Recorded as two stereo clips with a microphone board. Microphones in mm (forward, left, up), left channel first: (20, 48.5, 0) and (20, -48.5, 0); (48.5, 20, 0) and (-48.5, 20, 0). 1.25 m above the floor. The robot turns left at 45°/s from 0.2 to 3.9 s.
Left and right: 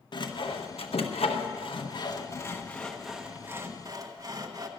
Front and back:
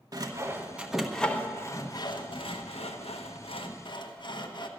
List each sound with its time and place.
0.1 s sawing: 130° left, 1.0 m; by 4.7 s 40° right, 1.0 m